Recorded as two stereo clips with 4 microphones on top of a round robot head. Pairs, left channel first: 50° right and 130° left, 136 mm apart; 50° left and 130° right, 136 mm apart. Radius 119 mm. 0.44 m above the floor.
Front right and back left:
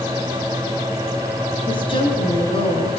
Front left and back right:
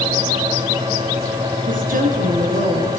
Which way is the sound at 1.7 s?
110° right.